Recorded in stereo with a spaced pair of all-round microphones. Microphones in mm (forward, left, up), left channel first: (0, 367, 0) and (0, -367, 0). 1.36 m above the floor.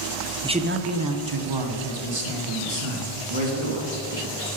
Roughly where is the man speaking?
Centre.